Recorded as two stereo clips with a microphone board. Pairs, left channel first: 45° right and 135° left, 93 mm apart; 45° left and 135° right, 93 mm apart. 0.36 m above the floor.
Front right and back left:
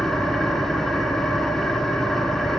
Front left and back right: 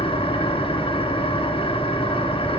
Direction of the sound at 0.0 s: 40° left.